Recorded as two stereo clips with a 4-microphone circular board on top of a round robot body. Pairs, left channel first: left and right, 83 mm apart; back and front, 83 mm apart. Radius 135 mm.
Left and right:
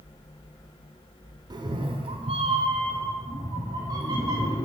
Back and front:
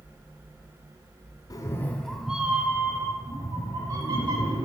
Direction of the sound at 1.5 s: 130° right.